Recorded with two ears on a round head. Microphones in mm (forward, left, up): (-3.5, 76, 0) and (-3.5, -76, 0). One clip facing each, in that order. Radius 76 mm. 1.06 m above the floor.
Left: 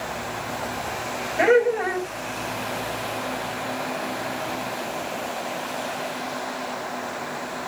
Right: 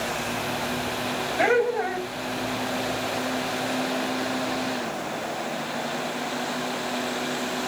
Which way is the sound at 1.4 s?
30° left (ahead or behind).